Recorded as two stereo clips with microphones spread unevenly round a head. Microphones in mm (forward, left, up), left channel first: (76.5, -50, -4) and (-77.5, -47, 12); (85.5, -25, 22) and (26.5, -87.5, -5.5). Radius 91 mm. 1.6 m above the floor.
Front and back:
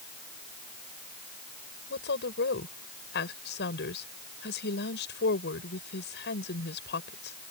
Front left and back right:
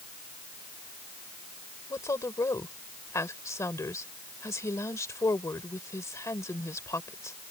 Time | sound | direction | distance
1.9 | a woman speaking | 5° right | ?